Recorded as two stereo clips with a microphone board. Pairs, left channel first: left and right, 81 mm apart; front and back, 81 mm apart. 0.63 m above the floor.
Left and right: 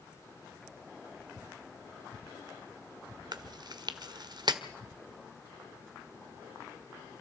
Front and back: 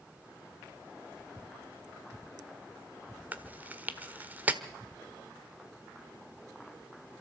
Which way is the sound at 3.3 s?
115° right.